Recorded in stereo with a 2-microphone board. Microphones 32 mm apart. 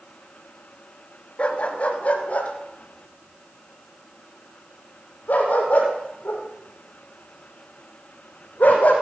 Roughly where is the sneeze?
I don't hear a sneeze.